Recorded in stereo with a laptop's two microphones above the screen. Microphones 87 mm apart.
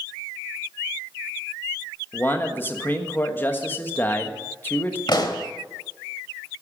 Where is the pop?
55° left (ahead or behind), 1.4 m.